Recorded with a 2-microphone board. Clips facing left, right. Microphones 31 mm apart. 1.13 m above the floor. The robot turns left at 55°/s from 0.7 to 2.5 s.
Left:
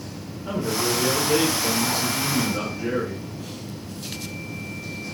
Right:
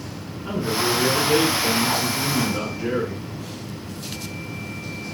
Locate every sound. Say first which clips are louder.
0.5 s a man speaking: right 2 dB; 20° right, 2 m; by 3.3 s 120° right, 2 m